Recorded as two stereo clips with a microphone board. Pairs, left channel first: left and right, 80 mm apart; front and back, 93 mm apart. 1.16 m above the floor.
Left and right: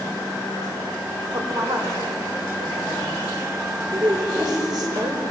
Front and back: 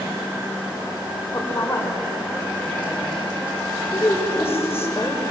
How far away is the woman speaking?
About 4.5 m.